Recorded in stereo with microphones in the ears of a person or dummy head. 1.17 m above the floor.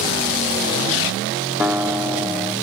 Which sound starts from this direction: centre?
A guitar, at 1.6 s.